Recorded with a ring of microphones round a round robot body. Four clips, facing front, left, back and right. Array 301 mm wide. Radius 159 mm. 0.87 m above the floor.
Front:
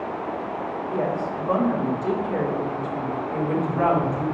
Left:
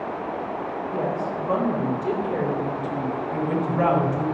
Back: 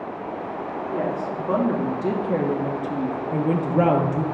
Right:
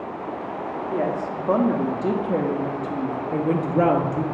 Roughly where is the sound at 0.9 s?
Right.